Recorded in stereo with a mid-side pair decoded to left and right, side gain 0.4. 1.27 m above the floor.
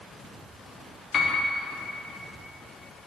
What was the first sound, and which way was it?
A piano, 50° left.